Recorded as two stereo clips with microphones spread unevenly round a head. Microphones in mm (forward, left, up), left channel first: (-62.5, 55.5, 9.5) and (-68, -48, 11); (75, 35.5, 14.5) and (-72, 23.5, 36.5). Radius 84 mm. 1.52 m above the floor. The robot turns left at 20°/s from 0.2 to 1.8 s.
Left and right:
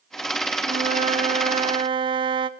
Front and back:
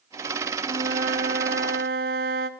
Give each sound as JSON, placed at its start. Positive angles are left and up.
{"t": 0.6, "sound": "a flute", "azimuth_deg": -115, "distance_m": 0.7}